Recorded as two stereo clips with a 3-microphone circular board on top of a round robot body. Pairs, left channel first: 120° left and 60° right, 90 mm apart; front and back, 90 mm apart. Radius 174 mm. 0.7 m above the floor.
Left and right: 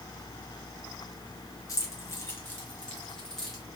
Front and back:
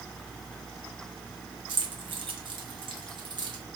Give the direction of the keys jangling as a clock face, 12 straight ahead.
6 o'clock.